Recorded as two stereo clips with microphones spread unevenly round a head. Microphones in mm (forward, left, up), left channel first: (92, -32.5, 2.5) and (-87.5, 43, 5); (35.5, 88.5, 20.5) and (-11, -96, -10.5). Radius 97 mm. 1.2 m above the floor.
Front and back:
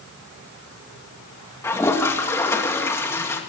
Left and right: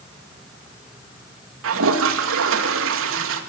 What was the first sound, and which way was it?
A toilet flushing, 100° right.